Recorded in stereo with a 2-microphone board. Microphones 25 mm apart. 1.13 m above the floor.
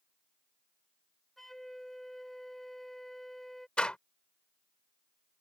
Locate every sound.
1.4 s a flute: 15° left (ahead or behind)
3.8 s a door slam: 45° left (ahead or behind)